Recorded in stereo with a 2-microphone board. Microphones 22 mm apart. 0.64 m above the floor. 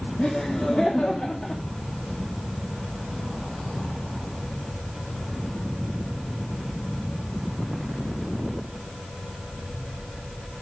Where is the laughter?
35° left (ahead or behind), 0.7 m.